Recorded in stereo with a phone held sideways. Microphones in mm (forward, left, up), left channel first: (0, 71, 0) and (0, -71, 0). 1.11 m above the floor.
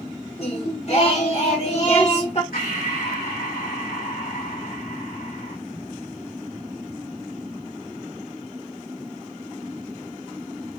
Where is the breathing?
80° left, 3 m.